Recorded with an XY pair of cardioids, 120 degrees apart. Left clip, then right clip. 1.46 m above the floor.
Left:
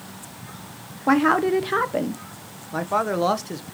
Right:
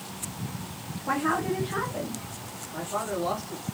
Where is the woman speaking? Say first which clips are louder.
Left 8 dB; 55° left, 0.7 m.